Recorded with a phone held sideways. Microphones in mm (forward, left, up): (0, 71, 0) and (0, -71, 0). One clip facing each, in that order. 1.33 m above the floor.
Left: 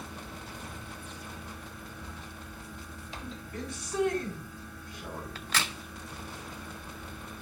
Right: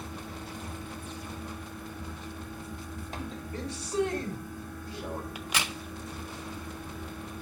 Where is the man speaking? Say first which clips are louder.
Right 2 dB; 30° right (ahead or behind), 3.5 m.